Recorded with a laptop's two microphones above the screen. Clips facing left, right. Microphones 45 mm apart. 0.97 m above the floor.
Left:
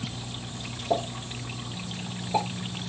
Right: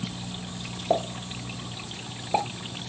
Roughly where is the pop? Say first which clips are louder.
Right 2 dB; right.